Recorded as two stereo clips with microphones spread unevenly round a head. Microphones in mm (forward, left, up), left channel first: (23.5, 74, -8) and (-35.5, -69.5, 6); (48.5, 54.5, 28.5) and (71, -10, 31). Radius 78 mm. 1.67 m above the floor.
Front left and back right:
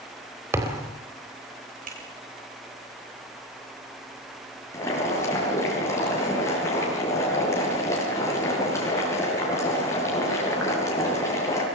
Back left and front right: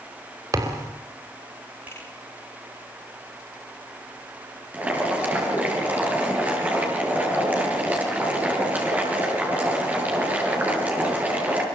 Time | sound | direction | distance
0.5 | a thud | 40° right | 4 m
1.9 | a finger snap | 150° right | 8 m
4.7 | boiling | 5° right | 8.5 m